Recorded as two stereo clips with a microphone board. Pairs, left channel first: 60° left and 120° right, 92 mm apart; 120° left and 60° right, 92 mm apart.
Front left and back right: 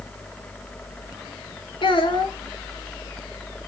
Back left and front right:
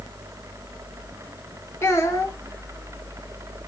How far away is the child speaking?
About 0.8 m.